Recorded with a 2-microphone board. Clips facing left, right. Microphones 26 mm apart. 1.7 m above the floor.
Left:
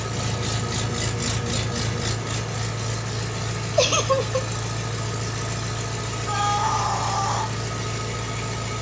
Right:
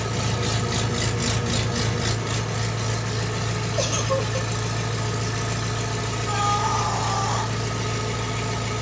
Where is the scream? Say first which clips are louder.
Left 1 dB; 10° left (ahead or behind), 1.2 m.